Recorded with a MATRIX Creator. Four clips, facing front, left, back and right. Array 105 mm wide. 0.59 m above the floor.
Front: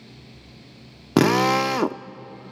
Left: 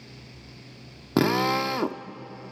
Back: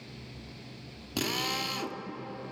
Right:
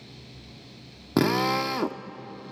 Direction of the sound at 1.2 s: Straight ahead.